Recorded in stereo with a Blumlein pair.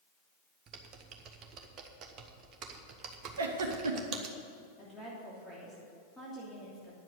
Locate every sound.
0.7 s typing on a keyboard: 30° right, 1.2 m
3.4 s a giggle: 65° right, 1.3 m
4.8 s a woman speaking: 5° left, 3 m